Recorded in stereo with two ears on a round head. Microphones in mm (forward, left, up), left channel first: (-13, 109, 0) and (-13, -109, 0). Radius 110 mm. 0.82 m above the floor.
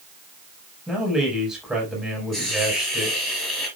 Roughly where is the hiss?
Centre.